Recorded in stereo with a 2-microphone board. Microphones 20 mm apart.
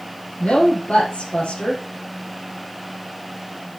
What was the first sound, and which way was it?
A woman speaking, 70° left (ahead or behind).